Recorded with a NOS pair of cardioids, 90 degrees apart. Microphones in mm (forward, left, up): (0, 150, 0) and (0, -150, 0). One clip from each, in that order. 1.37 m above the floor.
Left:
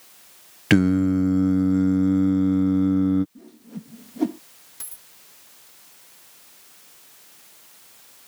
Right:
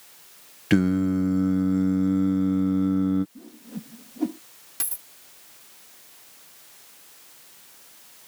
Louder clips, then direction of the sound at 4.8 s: Right 8 dB; 55° right.